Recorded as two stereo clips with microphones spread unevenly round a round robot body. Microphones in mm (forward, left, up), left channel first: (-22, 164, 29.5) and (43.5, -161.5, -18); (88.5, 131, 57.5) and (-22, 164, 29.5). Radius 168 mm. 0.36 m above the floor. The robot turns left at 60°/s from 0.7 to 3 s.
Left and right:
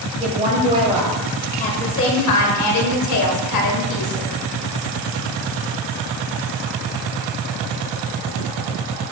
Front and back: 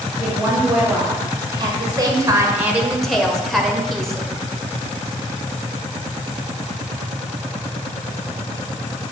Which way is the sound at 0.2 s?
135° right.